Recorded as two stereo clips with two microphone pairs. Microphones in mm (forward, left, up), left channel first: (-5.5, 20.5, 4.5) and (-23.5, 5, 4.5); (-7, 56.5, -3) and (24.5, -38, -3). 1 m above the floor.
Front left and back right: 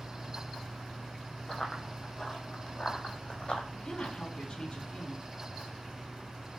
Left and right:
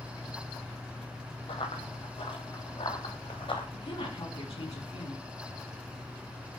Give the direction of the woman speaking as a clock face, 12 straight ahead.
9 o'clock.